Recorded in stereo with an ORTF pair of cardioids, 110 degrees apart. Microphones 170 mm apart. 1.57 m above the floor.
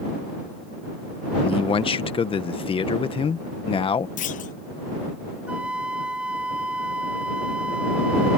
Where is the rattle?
No rattle in this recording.